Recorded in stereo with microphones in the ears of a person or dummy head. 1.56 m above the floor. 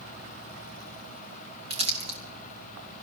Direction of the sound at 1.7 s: 25° right (ahead or behind).